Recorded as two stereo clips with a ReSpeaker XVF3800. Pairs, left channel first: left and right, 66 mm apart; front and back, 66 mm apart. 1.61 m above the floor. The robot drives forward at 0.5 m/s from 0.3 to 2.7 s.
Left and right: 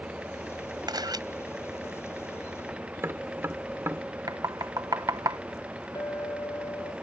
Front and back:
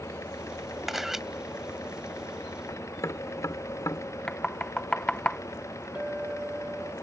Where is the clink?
110° left.